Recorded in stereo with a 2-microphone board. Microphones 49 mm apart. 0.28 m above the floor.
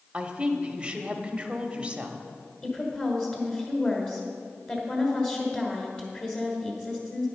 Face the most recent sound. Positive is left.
turn(degrees=25)  # may be behind; listen again after turning